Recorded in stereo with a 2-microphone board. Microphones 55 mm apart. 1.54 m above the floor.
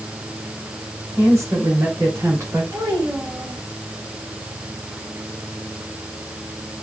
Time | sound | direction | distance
1.2 | a woman speaking | 70° right (ahead or behind) | 4.5 m
2.7 | a child speaking | 75° right (ahead or behind) | 6 m